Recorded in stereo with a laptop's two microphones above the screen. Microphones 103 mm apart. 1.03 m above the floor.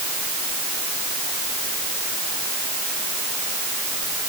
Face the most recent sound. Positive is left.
No sound to turn to.